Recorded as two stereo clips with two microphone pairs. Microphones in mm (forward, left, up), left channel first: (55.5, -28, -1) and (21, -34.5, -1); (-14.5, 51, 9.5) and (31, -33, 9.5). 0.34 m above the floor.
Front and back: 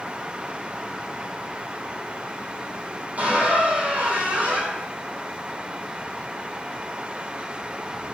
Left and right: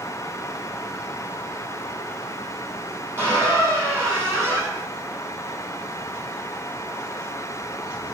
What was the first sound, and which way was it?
A squeak, 125° right.